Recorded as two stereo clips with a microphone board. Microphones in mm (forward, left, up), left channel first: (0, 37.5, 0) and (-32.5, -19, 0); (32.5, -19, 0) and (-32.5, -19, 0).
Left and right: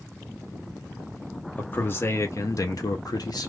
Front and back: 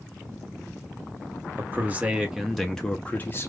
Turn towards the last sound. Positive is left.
turn(degrees=50)